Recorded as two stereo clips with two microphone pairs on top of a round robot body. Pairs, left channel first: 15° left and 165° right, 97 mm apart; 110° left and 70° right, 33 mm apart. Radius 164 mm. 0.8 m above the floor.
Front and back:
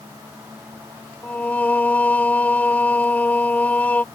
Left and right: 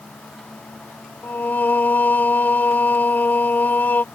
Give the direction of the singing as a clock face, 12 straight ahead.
9 o'clock.